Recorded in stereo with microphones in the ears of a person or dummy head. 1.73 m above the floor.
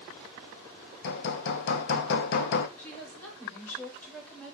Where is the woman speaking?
20° left (ahead or behind), 3.5 m.